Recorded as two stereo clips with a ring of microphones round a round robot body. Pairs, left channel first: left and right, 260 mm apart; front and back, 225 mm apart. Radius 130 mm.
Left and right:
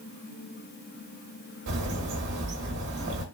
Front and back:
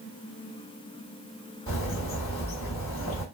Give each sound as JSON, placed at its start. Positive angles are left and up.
{"t": 1.7, "sound": "a bird", "azimuth_deg": -45, "distance_m": 1.2}